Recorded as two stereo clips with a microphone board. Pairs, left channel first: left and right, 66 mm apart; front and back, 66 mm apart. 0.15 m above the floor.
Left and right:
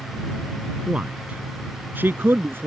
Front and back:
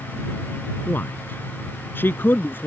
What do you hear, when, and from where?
0.9 s a man speaking: 30° right; by 2.7 s 50° right